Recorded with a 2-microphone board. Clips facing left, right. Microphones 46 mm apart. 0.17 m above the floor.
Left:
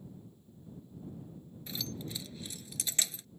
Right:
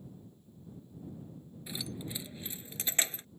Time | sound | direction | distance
1.7 | keys jangling | 15° right (ahead or behind) | ?